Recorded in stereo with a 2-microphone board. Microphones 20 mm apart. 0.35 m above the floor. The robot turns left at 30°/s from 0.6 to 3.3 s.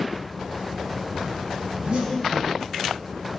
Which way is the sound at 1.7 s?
60° right (ahead or behind).